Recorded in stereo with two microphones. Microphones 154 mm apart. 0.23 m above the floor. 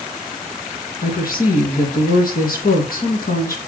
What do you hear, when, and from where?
1.0 s a woman speaking: 70° left (ahead or behind), 4 m